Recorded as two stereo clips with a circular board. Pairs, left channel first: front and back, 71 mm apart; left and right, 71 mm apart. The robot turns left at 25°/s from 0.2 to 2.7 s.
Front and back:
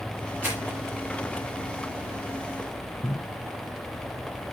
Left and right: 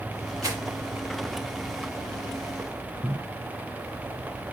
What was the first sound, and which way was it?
Crumpling, 120° right.